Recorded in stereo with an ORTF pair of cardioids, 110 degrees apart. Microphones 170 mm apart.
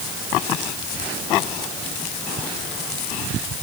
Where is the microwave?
I don't hear a microwave.